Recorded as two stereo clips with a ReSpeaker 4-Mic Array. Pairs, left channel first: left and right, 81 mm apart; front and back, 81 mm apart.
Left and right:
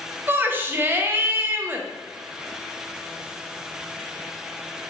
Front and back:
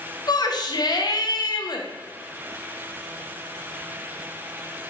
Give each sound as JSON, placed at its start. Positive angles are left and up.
{"t": 0.3, "sound": "a shout", "azimuth_deg": -30, "distance_m": 0.5}